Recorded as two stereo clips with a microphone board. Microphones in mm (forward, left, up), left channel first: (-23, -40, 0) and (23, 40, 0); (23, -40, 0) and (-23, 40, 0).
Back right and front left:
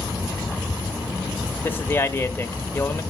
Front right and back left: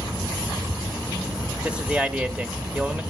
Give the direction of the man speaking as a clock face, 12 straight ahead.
6 o'clock.